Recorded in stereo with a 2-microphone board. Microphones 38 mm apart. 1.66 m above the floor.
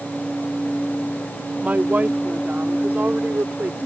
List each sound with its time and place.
1.6 s a woman speaking: 40° right (ahead or behind); by 3.8 s 55° right (ahead or behind)